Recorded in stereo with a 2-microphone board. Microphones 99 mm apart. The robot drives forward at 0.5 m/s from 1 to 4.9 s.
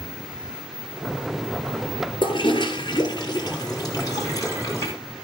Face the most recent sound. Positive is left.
turn(degrees=35)  # may be behind; listen again after turning